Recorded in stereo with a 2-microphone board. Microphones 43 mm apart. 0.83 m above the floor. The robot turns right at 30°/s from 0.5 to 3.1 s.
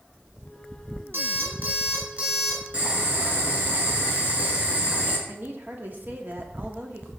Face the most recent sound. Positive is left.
turn(degrees=-50)  # may be behind; listen again after turning